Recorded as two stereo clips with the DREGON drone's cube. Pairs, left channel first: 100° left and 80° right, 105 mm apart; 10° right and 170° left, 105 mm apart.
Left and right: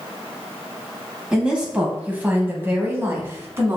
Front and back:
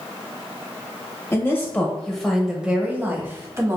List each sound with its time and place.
1.3 s a woman speaking: 10° right, 1.1 m; by 3.8 s 135° right, 1.5 m